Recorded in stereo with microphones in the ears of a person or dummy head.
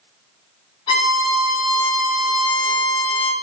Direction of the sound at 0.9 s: 30° left (ahead or behind).